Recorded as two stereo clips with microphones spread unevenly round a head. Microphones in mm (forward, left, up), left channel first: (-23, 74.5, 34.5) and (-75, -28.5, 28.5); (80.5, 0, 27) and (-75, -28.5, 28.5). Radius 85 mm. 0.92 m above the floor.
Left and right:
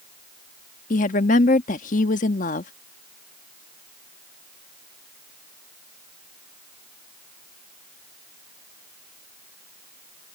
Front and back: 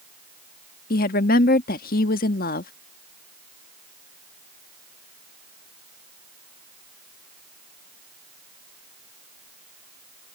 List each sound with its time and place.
0.9 s a woman speaking: 45° left